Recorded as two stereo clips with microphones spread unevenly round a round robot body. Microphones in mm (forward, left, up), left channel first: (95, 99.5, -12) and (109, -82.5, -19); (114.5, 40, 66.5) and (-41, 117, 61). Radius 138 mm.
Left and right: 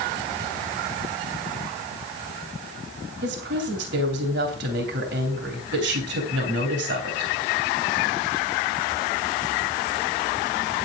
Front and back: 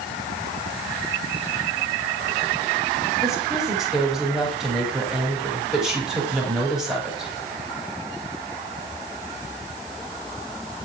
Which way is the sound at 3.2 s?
120° right.